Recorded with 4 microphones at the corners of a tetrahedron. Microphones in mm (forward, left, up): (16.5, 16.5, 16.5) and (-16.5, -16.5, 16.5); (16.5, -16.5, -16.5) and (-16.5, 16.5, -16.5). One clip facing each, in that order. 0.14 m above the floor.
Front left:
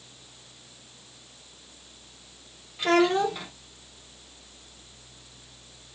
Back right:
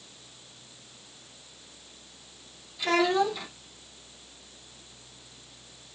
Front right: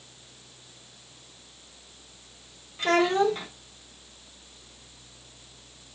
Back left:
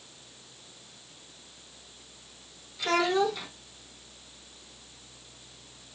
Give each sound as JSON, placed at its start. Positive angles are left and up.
{"t": 2.8, "sound": "a child speaking", "azimuth_deg": 0, "distance_m": 4.0}